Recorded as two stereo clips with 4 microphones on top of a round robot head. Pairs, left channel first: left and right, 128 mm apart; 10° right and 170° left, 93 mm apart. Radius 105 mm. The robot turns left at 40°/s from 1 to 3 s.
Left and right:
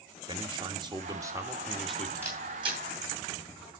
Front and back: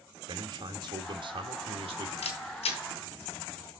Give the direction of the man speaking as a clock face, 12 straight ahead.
5 o'clock.